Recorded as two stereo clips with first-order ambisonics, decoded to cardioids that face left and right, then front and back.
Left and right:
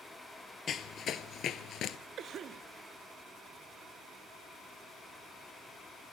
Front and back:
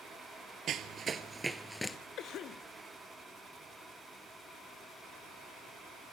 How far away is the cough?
About 0.8 m.